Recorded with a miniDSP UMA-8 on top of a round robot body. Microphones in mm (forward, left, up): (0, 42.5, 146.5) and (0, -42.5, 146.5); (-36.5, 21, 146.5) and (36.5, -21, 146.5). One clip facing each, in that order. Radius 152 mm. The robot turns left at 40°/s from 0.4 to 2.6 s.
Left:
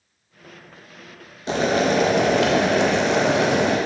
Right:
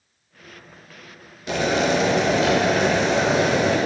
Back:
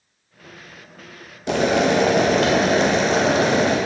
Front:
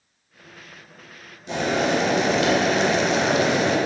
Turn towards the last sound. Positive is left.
turn(degrees=100)